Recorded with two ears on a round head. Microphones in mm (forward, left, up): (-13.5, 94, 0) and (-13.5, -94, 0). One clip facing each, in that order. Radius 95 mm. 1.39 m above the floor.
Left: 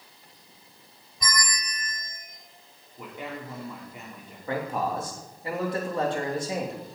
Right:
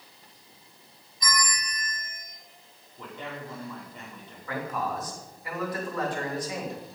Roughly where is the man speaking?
Left.